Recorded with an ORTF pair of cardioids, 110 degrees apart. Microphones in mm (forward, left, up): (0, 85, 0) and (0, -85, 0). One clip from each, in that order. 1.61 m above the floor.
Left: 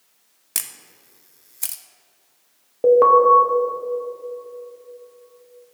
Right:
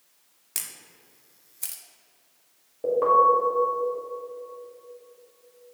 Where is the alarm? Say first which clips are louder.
Left 8 dB; 55° left, 2 m.